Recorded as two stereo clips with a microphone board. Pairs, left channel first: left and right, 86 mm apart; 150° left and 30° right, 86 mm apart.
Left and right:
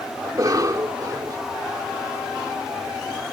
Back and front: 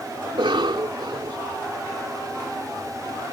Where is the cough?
50° right.